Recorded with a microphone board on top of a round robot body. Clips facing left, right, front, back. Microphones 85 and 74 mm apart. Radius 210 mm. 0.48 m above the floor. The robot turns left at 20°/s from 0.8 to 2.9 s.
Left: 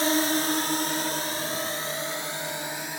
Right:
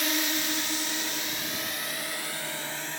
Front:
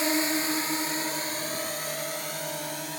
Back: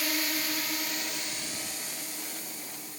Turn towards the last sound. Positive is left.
turn(degrees=15)